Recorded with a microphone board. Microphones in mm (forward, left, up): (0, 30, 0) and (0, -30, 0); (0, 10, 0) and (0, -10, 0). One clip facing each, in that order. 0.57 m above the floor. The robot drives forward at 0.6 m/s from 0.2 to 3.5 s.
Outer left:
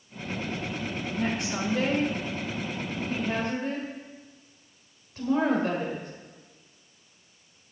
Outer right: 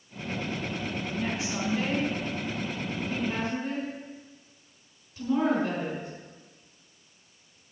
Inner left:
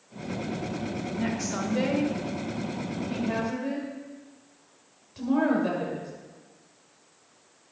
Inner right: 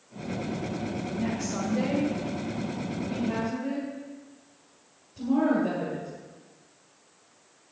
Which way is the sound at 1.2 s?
60° left (ahead or behind).